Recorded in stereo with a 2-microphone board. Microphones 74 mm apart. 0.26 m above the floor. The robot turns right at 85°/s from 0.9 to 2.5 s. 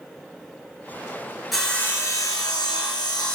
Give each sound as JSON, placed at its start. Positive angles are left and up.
{"t": 1.5, "sound": "sawing", "azimuth_deg": 5, "distance_m": 3.0}